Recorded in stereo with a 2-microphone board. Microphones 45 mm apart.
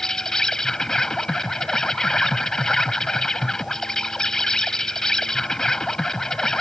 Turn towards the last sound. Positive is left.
turn(degrees=15)  # may be behind; listen again after turning